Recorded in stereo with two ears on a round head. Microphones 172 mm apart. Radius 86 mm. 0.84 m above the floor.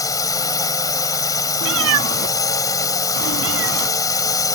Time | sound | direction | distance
0.0 | a drone | 20° left (ahead or behind) | ?
1.6 | a cat meowing | 80° right | ?